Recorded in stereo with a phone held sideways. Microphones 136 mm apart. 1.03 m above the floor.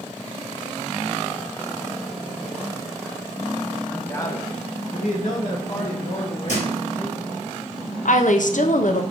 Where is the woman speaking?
75° left (ahead or behind), 0.5 m.